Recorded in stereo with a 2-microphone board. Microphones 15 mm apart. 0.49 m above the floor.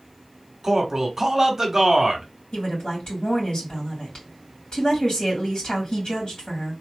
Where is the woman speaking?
70° left (ahead or behind), 3 m.